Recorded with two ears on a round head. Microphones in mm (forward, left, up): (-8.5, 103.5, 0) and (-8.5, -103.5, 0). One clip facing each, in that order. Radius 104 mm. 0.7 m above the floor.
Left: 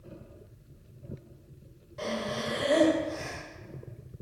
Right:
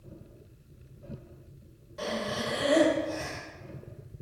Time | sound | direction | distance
2.0 | breathing | 5° right (ahead or behind) | 1.0 m